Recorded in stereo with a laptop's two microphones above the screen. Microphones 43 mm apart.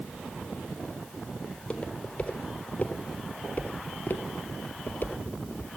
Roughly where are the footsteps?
Left.